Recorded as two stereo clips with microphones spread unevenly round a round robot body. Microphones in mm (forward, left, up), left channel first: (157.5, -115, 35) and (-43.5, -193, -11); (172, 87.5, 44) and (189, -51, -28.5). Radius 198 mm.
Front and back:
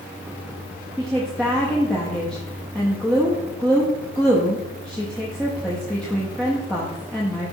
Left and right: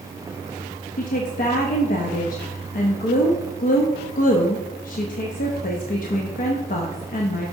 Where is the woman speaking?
125° left, 0.5 m.